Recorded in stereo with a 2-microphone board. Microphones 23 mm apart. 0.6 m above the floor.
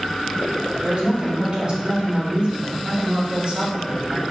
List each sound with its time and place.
0.8 s a man speaking: 45° right (ahead or behind), 0.9 m